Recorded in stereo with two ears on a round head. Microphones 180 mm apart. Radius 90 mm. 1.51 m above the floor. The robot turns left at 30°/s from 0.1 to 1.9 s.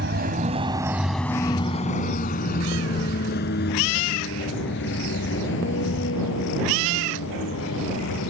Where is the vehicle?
60° right (ahead or behind); by 8.3 s 70° left (ahead or behind).